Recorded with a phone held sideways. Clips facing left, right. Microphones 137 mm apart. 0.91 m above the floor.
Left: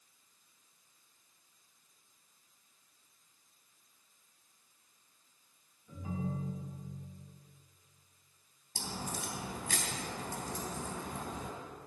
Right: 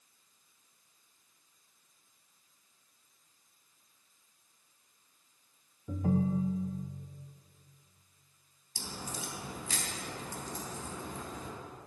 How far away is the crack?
About 3.5 m.